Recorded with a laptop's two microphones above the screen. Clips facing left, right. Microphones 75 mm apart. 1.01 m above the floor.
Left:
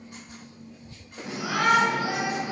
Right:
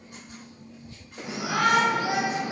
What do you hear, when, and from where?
1.2 s a shout: 5° right (ahead or behind), 5 m; by 2.5 s 10° left (ahead or behind), 4 m